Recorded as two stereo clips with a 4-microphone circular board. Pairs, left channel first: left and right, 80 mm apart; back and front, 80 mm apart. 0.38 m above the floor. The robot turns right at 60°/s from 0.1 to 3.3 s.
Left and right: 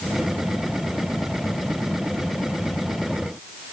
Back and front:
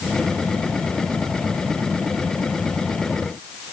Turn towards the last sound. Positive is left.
No sound to turn to.